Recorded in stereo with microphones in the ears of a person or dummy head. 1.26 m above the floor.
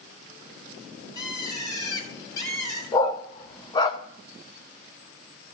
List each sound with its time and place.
1.1 s a bird: 20° left (ahead or behind), 3.5 m
2.9 s a dog barking: 25° left (ahead or behind), 1.2 m